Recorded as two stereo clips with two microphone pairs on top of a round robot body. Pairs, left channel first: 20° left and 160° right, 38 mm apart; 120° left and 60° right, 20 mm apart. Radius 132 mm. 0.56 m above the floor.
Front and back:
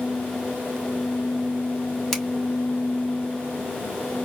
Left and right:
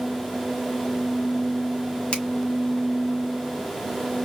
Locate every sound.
2.1 s a finger snap: 110° left, 2 m